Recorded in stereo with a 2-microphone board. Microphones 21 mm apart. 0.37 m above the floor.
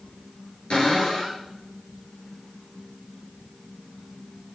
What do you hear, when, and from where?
0.7 s a cupboard door: 60° left (ahead or behind), 7.5 m